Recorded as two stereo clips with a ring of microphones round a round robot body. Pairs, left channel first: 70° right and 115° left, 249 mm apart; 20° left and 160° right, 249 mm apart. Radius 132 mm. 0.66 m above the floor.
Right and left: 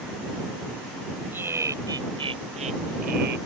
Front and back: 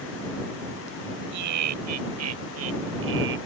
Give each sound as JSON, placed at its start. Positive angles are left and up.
{"t": 1.3, "sound": "laughter", "azimuth_deg": -165}